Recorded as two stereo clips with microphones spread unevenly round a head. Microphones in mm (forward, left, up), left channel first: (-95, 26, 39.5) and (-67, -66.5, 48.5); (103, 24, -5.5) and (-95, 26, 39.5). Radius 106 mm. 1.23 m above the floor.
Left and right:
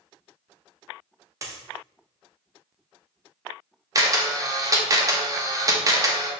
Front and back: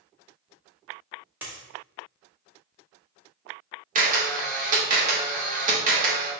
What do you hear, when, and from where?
1.4 s a dropped coin: 115° right, 0.9 m
4.0 s a camera shutter: 125° right, 1.0 m